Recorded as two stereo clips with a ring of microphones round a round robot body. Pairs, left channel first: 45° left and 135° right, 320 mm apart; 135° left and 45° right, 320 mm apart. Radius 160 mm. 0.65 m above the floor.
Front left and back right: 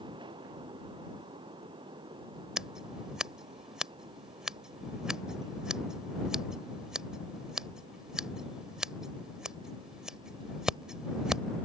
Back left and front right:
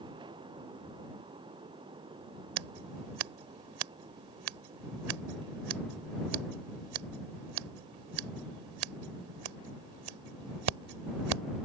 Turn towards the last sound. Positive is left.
turn(degrees=-45)